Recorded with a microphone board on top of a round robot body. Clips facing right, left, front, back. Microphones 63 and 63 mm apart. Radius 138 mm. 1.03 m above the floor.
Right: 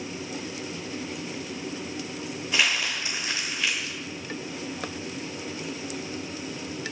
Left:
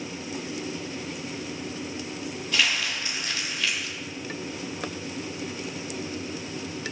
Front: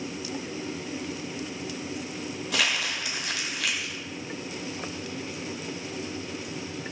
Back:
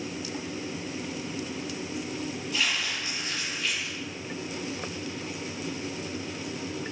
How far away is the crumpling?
About 0.8 m.